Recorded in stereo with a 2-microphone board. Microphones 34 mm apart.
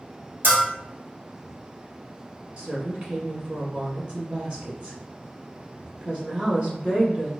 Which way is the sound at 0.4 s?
60° right (ahead or behind).